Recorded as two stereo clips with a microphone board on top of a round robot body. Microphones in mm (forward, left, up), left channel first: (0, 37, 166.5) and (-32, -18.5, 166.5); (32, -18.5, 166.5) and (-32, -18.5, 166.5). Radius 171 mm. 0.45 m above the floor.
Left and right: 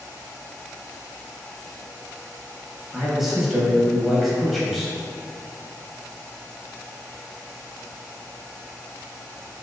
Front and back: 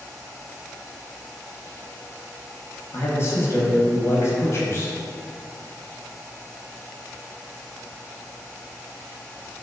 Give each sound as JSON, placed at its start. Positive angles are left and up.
{"t": 2.9, "sound": "a man speaking", "azimuth_deg": -30, "distance_m": 0.9}